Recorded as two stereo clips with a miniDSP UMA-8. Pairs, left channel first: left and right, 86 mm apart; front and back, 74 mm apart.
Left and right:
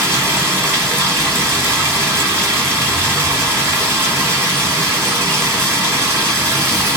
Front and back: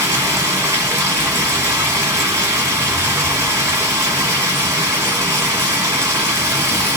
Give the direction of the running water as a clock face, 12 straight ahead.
5 o'clock.